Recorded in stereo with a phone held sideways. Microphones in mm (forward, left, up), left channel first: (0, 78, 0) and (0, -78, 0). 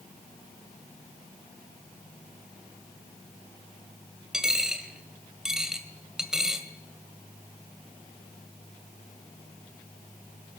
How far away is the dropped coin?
About 1.9 m.